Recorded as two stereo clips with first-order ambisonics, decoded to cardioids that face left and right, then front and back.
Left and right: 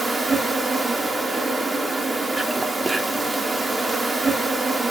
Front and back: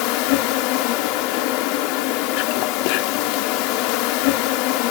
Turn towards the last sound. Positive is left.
turn(degrees=-10)